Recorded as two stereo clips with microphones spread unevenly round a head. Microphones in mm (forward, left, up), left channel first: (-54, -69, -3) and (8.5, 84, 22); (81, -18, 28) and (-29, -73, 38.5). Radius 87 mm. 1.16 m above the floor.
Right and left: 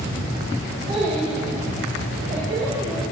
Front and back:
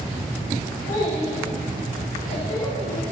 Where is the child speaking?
10° left, 5 m; by 3.0 s 5° left, 6.5 m.